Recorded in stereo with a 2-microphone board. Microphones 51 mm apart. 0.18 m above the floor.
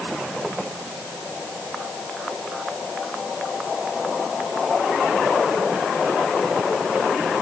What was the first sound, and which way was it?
Only background noise.